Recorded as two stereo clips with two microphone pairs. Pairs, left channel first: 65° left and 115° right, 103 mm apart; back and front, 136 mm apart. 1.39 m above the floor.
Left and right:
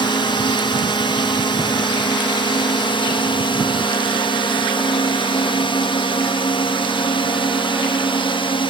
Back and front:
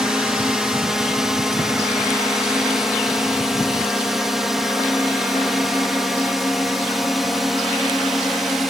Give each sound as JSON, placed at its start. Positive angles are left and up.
{"t": 0.0, "sound": "a drone", "azimuth_deg": 85}